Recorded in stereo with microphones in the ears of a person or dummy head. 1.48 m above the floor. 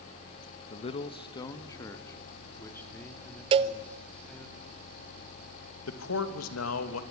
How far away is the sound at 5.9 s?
About 2.5 m.